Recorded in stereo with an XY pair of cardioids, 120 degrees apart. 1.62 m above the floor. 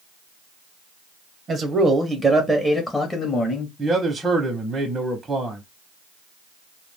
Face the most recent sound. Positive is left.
turn(degrees=-20)